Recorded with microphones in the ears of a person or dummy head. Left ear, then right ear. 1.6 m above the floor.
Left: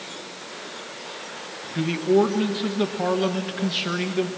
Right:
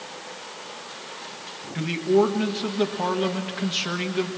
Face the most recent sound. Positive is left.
turn(degrees=0)  # may be behind; listen again after turning